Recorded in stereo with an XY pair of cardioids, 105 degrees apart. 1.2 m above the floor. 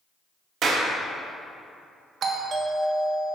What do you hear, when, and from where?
0.6 s a clap: 55° right, 2 m
2.2 s a doorbell: 60° right, 1.3 m